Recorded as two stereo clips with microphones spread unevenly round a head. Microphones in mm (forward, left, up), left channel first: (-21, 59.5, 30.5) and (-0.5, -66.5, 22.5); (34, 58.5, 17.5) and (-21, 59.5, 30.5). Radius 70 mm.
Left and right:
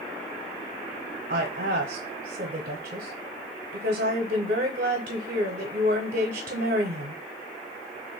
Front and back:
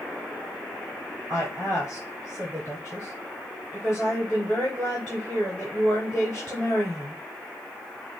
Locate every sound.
1.3 s a woman speaking: 105° right, 0.7 m